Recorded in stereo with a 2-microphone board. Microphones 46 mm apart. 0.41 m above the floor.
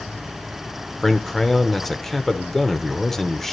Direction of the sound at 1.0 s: 5° left (ahead or behind).